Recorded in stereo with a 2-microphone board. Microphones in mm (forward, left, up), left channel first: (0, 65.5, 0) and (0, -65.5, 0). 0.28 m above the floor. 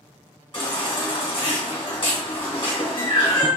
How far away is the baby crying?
About 2 m.